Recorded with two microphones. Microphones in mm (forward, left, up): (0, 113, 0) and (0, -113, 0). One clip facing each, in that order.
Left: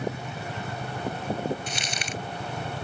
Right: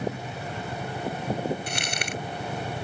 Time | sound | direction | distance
1.7 | crumpling | 60° right (ahead or behind) | ?